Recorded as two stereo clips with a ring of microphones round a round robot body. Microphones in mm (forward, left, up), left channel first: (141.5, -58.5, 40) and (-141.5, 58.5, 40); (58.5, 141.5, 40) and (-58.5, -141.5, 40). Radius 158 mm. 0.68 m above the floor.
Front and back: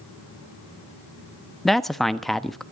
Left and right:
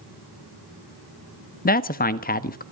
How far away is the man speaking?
About 1.1 m.